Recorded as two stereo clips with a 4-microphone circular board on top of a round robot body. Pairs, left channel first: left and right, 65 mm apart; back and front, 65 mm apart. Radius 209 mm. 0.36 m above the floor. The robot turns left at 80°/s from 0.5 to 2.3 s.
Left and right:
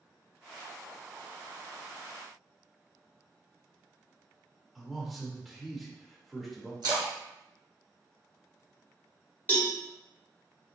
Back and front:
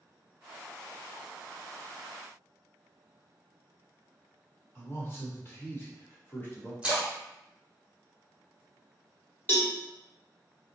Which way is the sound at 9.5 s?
140° left.